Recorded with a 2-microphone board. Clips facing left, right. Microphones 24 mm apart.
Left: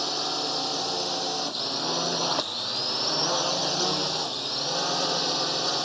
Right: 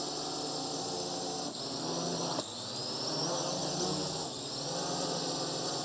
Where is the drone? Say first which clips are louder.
Left 9 dB; 45° left (ahead or behind).